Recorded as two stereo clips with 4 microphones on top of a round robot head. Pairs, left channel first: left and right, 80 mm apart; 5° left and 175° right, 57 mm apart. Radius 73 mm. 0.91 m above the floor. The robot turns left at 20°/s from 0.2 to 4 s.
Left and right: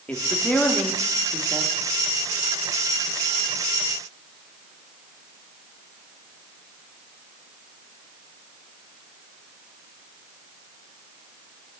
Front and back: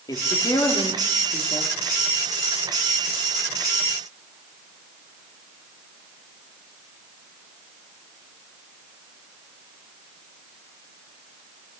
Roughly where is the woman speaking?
Ahead.